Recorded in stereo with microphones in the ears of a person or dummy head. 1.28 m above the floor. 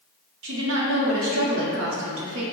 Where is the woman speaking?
75° right (ahead or behind), 0.7 m.